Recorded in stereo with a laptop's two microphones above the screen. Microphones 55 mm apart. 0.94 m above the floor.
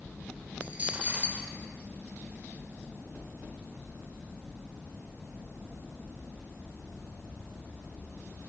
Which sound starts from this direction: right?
A dropped coin, at 0.6 s.